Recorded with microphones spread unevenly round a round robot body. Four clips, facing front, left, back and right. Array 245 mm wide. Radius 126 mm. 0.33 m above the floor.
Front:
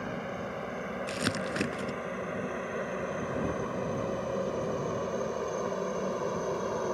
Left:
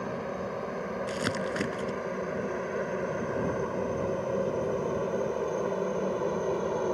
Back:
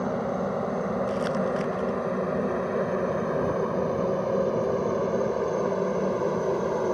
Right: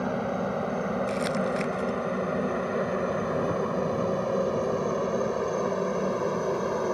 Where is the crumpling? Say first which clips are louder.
Right 4 dB, back 7 dB; 35° left.